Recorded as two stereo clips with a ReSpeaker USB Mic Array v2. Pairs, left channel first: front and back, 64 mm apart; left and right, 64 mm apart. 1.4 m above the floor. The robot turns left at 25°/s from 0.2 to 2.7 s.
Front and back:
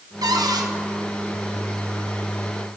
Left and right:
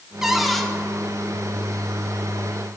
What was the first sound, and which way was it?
A cupboard door, 170° right.